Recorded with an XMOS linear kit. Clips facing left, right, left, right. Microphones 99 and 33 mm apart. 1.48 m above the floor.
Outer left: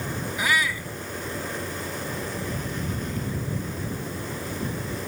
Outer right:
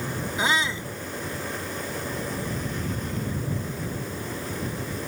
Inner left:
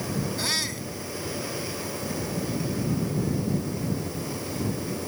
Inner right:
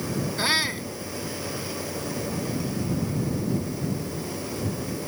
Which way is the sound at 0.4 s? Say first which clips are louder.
Even, inner right 5 dB; 25° right (ahead or behind).